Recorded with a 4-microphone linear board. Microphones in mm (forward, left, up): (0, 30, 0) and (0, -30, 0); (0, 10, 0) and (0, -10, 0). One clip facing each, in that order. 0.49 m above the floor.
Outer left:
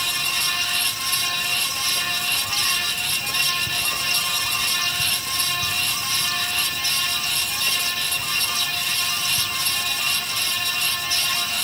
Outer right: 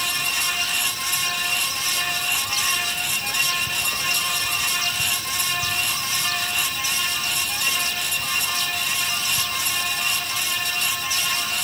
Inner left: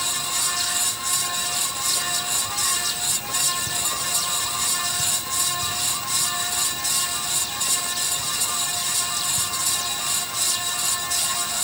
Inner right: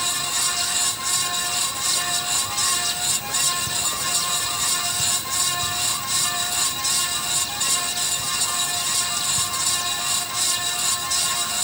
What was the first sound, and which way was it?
Only background noise.